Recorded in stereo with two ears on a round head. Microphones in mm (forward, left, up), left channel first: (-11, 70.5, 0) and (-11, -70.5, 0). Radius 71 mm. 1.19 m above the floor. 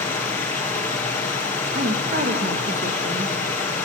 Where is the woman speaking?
45° right (ahead or behind), 1.3 m.